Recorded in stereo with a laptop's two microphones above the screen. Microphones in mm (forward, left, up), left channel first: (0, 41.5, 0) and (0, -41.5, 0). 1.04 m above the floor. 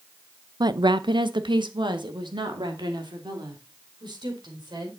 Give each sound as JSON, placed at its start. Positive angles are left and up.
{"t": 0.6, "sound": "a woman speaking", "side_deg": -55, "distance_m": 0.6}